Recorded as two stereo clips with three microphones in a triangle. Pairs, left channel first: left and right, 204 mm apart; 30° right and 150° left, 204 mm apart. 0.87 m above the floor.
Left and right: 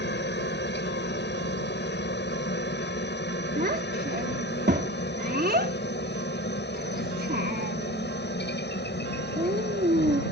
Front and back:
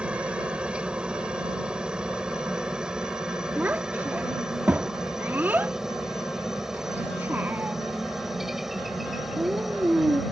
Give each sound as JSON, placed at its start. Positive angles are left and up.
{"t": 0.0, "sound": "a helicopter", "azimuth_deg": 65}
{"t": 3.6, "sound": "a child speaking", "azimuth_deg": -130}